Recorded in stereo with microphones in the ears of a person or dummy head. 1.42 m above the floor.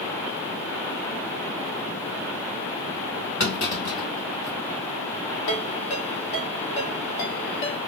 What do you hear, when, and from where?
3.4 s a clunk: 50° left (ahead or behind), 1.8 m
5.5 s a ringtone: 55° left (ahead or behind), 1.4 m